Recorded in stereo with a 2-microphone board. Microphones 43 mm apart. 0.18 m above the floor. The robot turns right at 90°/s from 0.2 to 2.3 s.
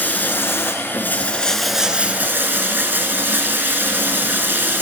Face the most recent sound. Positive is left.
turn(degrees=-125)